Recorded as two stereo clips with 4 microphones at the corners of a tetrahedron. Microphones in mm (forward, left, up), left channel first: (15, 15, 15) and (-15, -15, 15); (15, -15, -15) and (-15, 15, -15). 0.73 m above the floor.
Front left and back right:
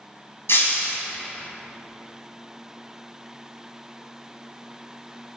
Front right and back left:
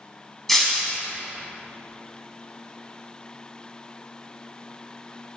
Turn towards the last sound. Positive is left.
turn(degrees=35)